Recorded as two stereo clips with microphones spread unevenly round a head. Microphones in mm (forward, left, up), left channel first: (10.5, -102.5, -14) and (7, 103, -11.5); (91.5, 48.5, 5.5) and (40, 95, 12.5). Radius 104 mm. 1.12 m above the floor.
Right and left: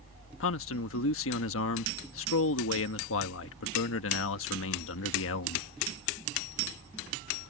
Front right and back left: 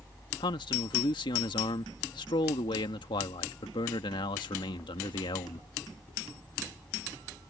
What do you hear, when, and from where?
0.4 s a man speaking: 65° right